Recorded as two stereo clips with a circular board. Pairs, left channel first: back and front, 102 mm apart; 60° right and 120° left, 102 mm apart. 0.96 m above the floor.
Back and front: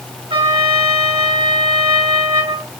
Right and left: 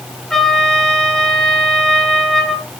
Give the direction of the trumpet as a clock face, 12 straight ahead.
11 o'clock.